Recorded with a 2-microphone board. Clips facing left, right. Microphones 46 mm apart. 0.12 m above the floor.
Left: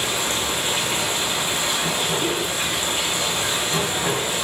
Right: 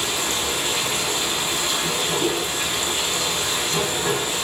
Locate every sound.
0.0 s running water: 25° left (ahead or behind), 4 m
2.2 s a whoosh: 25° right (ahead or behind), 3.5 m